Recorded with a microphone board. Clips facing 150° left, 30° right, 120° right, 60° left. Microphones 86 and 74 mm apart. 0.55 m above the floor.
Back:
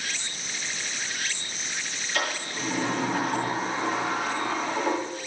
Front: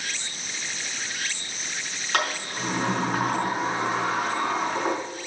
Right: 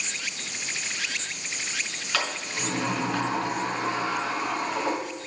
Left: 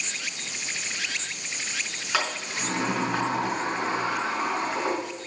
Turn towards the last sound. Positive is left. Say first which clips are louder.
# front 3 dB, left 2 dB
turn(degrees=-15)